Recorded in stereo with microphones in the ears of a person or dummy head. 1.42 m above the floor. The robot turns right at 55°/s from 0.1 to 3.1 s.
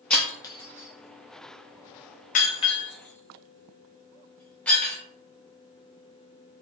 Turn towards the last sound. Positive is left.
turn(degrees=10)  # may be behind; listen again after turning